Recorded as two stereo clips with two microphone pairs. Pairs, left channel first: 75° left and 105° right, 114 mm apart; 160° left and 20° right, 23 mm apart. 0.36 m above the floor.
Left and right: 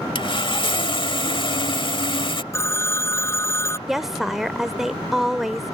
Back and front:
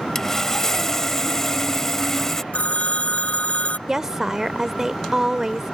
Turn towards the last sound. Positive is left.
turn(degrees=-15)